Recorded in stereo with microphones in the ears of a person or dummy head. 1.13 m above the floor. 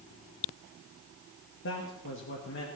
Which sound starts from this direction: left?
A man speaking, at 1.6 s.